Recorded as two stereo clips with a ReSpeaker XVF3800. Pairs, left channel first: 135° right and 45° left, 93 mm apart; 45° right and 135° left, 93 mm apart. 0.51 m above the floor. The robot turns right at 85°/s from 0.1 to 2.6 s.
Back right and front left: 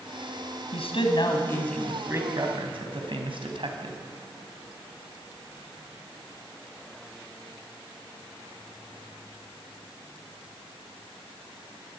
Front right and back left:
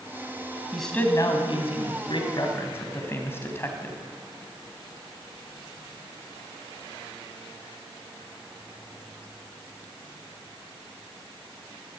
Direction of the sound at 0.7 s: 140° right.